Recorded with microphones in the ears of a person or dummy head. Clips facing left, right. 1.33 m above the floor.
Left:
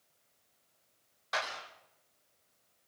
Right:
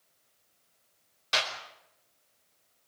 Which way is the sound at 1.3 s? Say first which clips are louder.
Right 3 dB; 40° right (ahead or behind).